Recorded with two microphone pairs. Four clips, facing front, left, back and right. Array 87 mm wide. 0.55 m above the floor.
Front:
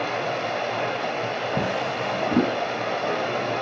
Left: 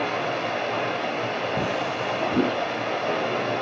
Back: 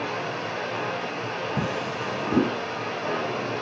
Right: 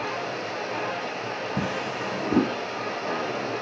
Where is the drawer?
55° right, 1.7 m.